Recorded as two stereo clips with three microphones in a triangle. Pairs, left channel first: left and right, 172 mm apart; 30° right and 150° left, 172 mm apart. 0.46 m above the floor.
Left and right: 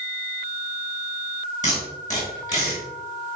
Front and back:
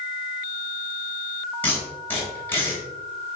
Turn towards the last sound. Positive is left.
turn(degrees=45)